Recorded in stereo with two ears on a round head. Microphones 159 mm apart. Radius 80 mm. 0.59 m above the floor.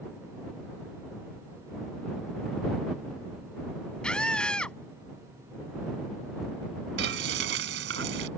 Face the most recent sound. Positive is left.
turn(degrees=-70)  # may be behind; listen again after turning